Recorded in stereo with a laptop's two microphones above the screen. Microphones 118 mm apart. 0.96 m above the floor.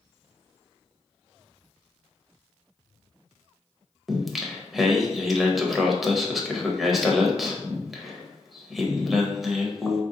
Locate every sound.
4.1 s singing: centre (ahead or behind), 0.6 m